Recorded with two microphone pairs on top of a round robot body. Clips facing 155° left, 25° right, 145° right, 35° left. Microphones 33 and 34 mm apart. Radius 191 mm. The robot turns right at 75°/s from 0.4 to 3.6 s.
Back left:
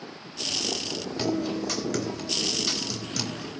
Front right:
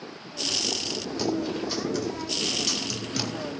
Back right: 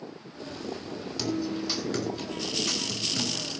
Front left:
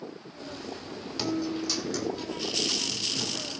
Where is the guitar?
105° left, 3.5 m; by 3.6 s 75° right, 3.5 m.